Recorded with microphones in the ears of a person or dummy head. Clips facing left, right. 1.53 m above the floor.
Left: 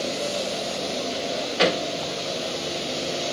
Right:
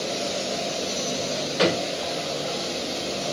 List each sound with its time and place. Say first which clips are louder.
1.1 s a drawer: right 2 dB; 5° right (ahead or behind), 2 m